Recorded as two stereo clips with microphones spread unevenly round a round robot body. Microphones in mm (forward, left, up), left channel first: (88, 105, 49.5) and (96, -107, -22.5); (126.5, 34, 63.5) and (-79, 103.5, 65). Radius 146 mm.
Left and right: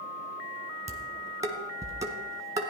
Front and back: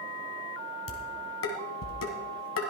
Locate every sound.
0.9 s dishes clattering: 20° right, 1.8 m